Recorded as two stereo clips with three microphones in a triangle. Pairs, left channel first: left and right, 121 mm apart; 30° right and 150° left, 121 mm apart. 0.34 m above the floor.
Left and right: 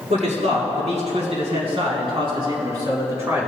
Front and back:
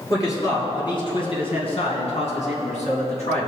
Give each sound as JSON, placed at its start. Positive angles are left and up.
{"t": 0.1, "sound": "a man speaking", "azimuth_deg": -95, "distance_m": 4.0}